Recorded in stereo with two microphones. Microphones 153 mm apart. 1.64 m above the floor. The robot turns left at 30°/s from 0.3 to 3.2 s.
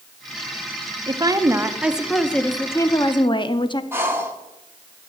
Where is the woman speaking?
150° right, 0.6 m; by 3.8 s 145° left, 0.6 m.